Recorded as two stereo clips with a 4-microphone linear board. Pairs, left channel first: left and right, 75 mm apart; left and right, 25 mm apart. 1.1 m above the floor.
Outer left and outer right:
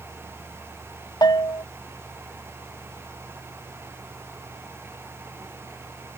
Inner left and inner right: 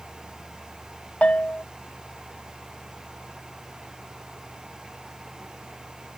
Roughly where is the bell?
Left.